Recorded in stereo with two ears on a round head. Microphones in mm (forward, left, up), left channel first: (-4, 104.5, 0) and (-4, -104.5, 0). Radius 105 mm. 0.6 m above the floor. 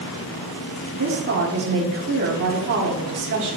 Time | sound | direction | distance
0.9 | a woman speaking | 45° right (ahead or behind) | 1.5 m